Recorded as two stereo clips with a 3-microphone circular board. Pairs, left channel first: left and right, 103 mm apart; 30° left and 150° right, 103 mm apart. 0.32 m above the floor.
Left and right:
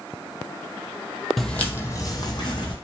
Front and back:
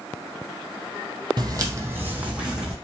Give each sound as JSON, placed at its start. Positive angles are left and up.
{"t": 1.4, "sound": "footsteps", "azimuth_deg": 180, "distance_m": 0.5}